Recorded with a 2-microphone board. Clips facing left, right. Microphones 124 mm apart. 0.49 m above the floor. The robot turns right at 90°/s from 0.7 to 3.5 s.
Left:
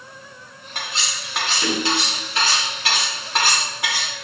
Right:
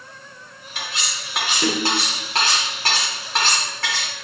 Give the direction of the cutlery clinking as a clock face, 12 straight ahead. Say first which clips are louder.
Left 1 dB; 8 o'clock.